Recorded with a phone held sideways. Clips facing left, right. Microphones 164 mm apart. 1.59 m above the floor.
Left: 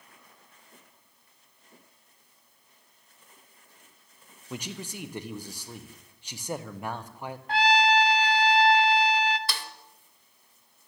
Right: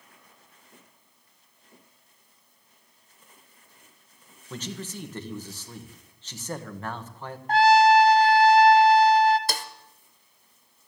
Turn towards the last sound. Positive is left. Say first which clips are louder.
# right 5 dB
turn(degrees=-45)  # may be behind; listen again after turning